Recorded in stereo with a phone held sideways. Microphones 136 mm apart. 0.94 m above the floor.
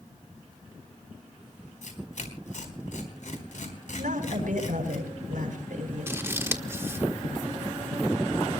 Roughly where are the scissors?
Centre.